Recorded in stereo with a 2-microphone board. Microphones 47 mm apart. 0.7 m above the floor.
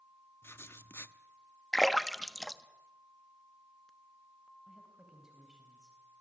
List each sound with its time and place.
0.4 s writing: 55° left (ahead or behind), 0.7 m
1.7 s a splash: 5° left (ahead or behind), 0.8 m
4.7 s a woman speaking: 15° right (ahead or behind), 4 m